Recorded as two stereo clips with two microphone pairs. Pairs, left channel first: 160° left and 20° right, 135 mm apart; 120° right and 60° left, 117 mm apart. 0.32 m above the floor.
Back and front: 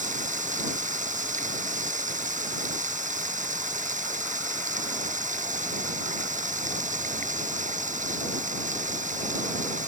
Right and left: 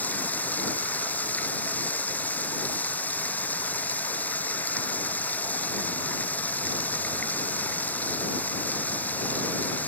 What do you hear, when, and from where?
0.0 s running water: 40° right